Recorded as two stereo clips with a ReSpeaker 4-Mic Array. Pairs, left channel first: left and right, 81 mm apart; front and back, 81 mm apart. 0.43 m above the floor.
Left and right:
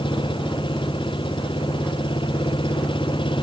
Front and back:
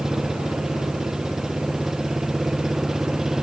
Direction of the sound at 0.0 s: 95° left.